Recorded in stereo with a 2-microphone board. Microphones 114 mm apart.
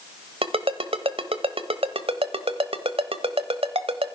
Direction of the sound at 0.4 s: 55° right (ahead or behind).